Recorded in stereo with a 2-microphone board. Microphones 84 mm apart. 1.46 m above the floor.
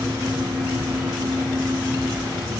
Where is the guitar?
No guitar in this recording.